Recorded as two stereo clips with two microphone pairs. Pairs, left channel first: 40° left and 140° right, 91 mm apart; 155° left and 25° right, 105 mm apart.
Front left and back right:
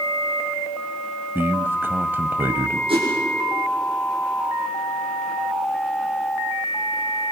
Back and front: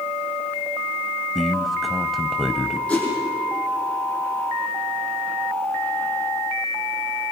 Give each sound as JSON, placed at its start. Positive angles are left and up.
{"t": 1.4, "sound": "a man speaking", "azimuth_deg": -115, "distance_m": 1.0}
{"t": 2.9, "sound": "a whoosh", "azimuth_deg": -125, "distance_m": 9.5}